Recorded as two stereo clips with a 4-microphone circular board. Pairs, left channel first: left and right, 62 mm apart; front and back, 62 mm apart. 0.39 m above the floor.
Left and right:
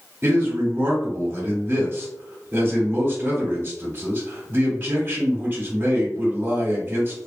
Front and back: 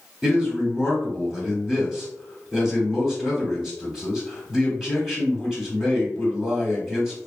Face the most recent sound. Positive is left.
turn(degrees=-100)